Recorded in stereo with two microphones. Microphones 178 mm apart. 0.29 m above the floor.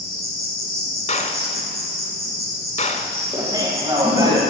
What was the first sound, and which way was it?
An insect, 60° right (ahead or behind).